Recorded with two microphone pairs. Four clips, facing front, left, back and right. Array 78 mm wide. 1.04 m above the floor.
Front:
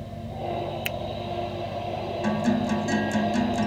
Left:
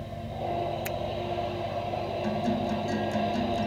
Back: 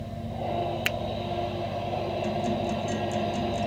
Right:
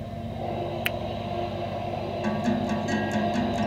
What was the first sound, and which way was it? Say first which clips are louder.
A finger snap: right 2 dB, back 2 dB; 150° right.